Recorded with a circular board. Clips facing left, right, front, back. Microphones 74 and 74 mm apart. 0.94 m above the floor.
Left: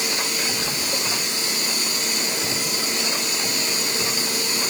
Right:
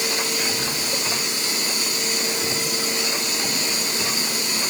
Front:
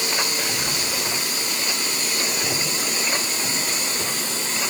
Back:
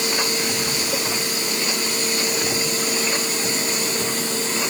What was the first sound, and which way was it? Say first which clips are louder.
Whispering: right 1 dB, back 2 dB; 5° left.